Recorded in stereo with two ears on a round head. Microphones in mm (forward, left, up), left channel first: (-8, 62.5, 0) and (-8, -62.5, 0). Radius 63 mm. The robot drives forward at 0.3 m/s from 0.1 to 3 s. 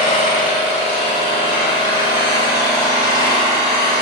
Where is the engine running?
50° left (ahead or behind), 0.9 m; by 4.0 s 30° left (ahead or behind), 1.4 m.